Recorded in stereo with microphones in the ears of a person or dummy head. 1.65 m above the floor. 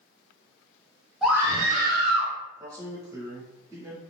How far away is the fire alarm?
I don't hear a fire alarm.